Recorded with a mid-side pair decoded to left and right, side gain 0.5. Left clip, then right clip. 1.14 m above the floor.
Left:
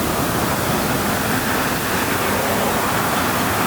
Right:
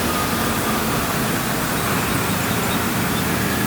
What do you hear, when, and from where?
Only background noise.